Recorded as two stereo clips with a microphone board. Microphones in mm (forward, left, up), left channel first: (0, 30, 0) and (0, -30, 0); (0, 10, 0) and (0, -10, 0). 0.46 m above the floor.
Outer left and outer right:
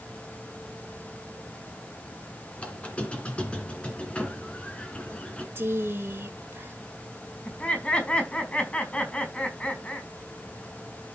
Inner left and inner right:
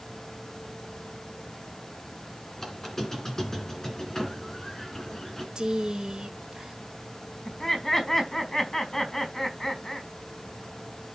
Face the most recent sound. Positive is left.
turn(degrees=25)  # may be behind; listen again after turning